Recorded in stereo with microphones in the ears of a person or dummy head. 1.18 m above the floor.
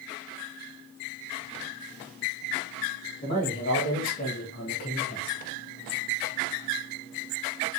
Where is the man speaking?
40° left (ahead or behind), 2.5 m; by 5.4 s 35° left (ahead or behind), 1.0 m.